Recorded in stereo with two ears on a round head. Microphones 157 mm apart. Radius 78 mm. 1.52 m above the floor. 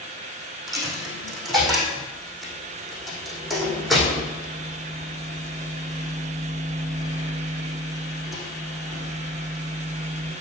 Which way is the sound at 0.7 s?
Centre (ahead or behind).